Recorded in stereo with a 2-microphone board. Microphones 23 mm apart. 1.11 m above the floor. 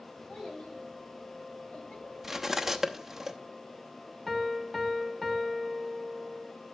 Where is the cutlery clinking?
15° right (ahead or behind), 0.7 m.